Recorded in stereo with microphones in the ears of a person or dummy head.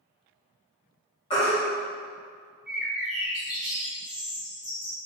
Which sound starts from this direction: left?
A baby crying, at 1.3 s.